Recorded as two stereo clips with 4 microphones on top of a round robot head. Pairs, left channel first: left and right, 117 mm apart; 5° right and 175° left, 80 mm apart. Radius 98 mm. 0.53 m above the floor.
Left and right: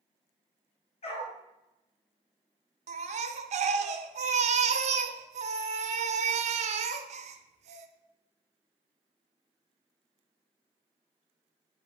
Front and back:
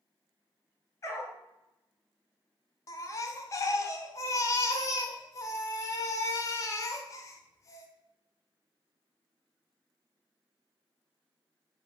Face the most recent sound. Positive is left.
turn(degrees=-60)